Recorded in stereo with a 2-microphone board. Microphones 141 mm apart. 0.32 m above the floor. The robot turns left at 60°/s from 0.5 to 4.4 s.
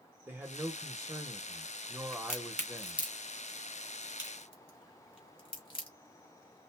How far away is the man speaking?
About 1.0 m.